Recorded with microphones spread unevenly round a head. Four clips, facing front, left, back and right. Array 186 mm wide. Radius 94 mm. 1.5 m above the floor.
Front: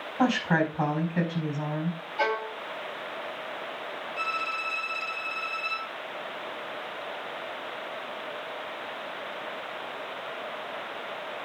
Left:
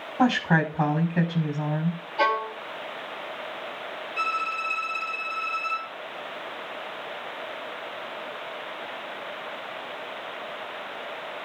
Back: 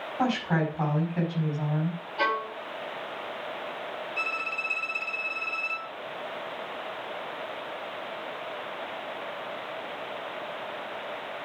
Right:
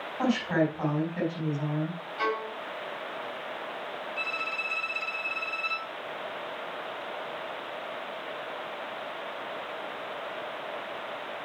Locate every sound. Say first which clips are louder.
0.2 s a woman speaking: left 4 dB, front 2 dB; 75° left, 4 m
2.2 s a violin: left 6 dB, even; 105° left, 2 m
4.2 s a violin: left 7 dB, front 2 dB; 140° left, 2 m